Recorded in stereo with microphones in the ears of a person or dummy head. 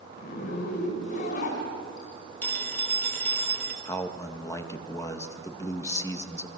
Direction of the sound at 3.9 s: 15° left (ahead or behind).